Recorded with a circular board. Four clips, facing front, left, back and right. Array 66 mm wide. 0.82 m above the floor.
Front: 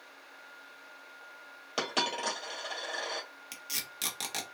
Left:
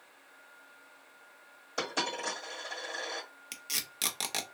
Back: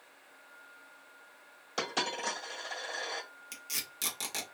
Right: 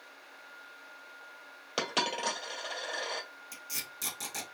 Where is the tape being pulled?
75° left, 0.7 m.